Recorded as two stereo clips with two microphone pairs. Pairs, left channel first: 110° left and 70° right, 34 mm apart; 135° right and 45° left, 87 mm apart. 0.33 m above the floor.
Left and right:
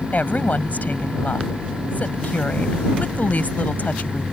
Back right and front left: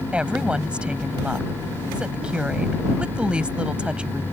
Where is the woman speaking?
120° left.